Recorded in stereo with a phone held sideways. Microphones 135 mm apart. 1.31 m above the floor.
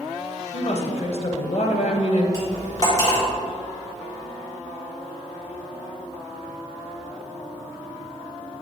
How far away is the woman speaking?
About 0.9 m.